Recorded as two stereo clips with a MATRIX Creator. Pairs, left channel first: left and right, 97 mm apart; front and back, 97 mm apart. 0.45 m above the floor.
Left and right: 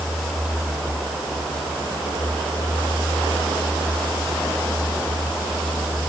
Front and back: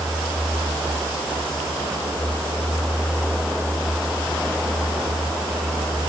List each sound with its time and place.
Only background noise.